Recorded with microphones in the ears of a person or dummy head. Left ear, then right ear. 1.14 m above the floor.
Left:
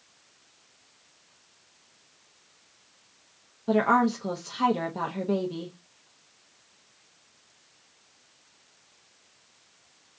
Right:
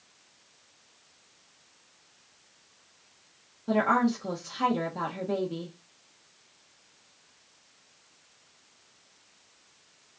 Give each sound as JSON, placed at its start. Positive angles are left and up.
{"t": 3.7, "sound": "a woman speaking", "side_deg": 15, "distance_m": 0.6}